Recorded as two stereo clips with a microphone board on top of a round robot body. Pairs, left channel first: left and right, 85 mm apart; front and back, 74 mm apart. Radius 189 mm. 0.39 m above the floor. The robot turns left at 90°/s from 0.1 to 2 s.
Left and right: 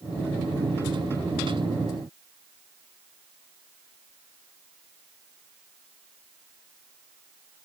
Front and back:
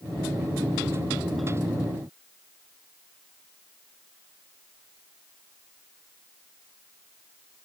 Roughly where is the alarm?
No alarm in this recording.